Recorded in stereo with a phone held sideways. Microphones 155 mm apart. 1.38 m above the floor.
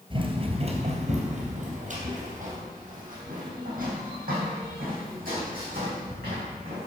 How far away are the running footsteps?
About 1.5 m.